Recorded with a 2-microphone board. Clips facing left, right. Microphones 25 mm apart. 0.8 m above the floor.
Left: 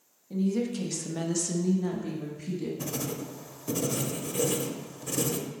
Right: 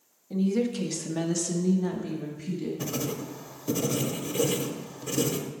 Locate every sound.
0.3 s a woman speaking: 15° right (ahead or behind), 1.3 m; by 2.7 s 5° left (ahead or behind), 1.3 m
2.8 s writing: 15° right (ahead or behind), 0.7 m